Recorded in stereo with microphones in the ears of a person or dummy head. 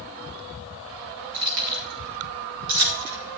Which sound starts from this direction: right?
Keys jangling, at 1.3 s.